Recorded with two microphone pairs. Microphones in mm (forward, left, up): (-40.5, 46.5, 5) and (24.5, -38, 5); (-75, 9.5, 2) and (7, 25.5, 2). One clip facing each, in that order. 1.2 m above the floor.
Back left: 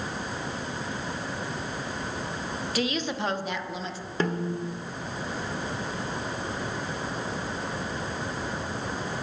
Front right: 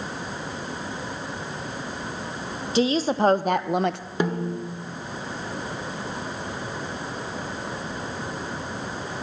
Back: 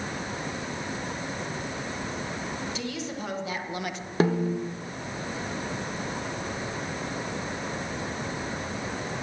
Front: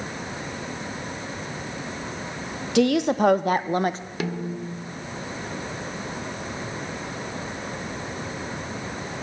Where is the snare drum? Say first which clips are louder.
Front right 2 dB, back 6 dB; 125° right, 1.2 m.